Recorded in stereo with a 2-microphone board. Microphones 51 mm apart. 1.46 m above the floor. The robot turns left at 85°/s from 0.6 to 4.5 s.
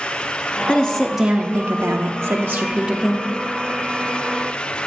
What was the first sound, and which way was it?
A woman speaking, 30° left.